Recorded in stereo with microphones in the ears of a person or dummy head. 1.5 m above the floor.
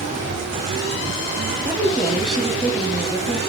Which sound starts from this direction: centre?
A woman speaking, at 1.6 s.